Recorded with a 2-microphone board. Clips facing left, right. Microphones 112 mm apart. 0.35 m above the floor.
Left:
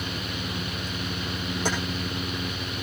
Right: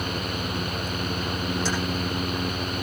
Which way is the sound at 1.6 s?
55° left (ahead or behind).